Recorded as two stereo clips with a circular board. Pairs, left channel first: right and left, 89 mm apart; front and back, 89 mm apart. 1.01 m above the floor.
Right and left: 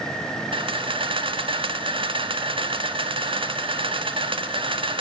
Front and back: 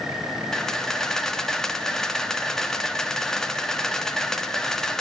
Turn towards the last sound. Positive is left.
turn(degrees=85)